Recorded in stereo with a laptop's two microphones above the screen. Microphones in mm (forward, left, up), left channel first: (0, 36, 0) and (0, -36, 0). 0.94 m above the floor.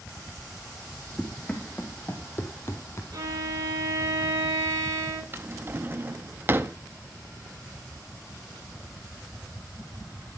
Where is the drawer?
30° right (ahead or behind), 0.7 m.